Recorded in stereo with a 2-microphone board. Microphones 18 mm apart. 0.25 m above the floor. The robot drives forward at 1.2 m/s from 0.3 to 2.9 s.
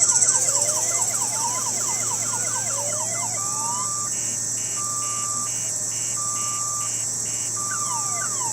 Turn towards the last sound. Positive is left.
turn(degrees=-5)  # may be behind; listen again after turning